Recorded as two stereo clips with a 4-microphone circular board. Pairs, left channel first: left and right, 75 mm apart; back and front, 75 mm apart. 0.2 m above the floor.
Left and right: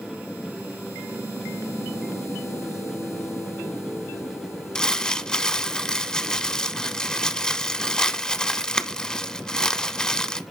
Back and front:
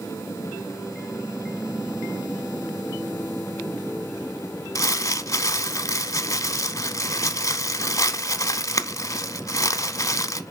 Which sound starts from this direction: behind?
Crumpling, at 4.8 s.